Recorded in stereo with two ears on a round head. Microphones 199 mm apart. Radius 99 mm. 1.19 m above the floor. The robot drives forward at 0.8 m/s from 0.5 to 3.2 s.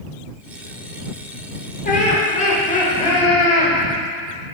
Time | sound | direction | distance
1.9 | laughter | 40° left (ahead or behind) | 4 m